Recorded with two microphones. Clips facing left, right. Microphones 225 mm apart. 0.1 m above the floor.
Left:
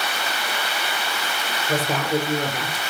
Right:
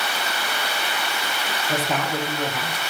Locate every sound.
1.7 s a woman speaking: 40° left (ahead or behind), 5 m; by 2.8 s 50° left (ahead or behind), 4.5 m